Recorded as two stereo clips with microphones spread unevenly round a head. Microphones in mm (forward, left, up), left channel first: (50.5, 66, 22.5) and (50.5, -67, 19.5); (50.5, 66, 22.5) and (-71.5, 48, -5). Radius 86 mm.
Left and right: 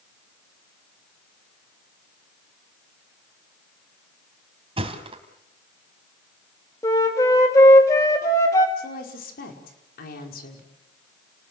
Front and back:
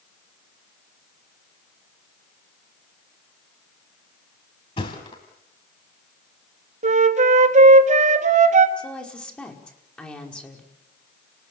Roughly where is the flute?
Behind.